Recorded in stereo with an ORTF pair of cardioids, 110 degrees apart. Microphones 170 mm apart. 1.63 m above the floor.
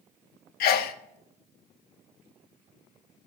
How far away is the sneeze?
About 0.9 m.